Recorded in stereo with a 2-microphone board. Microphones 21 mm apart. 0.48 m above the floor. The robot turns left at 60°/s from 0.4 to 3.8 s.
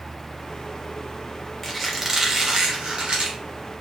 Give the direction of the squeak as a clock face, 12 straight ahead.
12 o'clock.